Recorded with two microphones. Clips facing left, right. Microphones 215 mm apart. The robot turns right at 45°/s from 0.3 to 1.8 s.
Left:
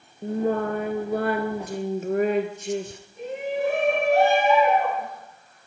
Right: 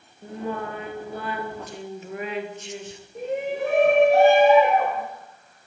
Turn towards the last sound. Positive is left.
turn(degrees=-70)  # may be behind; listen again after turning